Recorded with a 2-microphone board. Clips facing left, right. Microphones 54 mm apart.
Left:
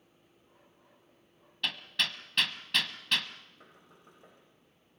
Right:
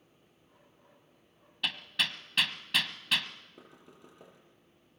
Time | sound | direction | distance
1.6 | hammering | 5° right (ahead or behind) | 1.5 m
3.6 | knocking | 80° right | 8.5 m